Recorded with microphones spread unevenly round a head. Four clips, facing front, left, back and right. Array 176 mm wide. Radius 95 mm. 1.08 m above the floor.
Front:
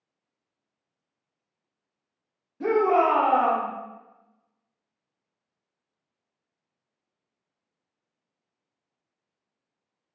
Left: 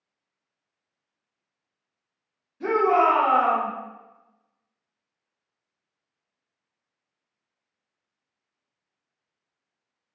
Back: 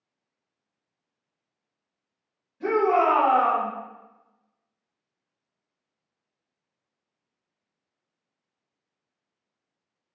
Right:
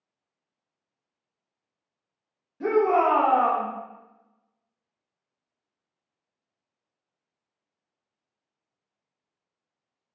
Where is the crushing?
No crushing in this recording.